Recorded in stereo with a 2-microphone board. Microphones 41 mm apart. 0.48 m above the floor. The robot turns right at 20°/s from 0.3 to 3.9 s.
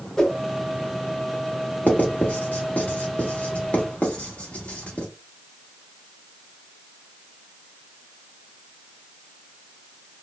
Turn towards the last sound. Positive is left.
turn(degrees=35)  # may be behind; listen again after turning